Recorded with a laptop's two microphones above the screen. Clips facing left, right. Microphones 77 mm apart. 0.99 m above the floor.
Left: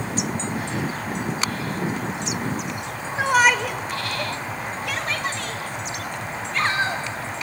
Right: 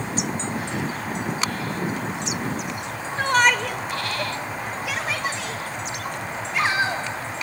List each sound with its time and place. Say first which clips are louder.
3.2 s a shout: left 1 dB; 10° left (ahead or behind), 0.8 m; by 7.1 s 10° right (ahead or behind), 3 m